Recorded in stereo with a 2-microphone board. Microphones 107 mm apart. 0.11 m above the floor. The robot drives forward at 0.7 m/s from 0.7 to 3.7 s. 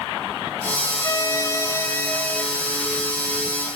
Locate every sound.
1.0 s a violin: 25° left (ahead or behind), 0.6 m; by 2.4 s 15° left (ahead or behind), 0.9 m